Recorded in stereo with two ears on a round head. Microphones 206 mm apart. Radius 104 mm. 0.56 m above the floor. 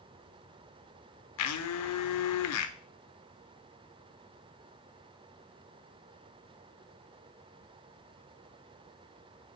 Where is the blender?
70° left (ahead or behind), 0.5 m.